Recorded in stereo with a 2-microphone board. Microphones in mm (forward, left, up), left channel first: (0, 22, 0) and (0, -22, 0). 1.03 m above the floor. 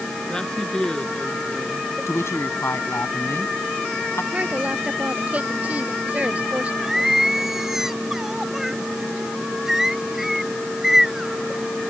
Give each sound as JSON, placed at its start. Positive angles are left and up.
{"t": 0.3, "sound": "a woman speaking", "side_deg": 15}
{"t": 2.1, "sound": "a woman speaking", "side_deg": 85}
{"t": 4.3, "sound": "a woman speaking", "side_deg": -35}
{"t": 6.8, "sound": "singing", "side_deg": -10}